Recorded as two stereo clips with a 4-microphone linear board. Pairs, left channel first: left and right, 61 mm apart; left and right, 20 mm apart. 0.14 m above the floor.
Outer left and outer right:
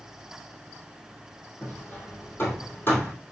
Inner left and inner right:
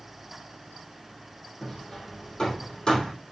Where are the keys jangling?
No keys jangling in this recording.